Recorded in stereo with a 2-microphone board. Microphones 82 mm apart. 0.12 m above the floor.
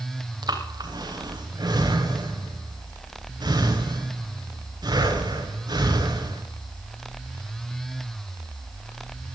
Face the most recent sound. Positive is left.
turn(degrees=-55)  # may be behind; listen again after turning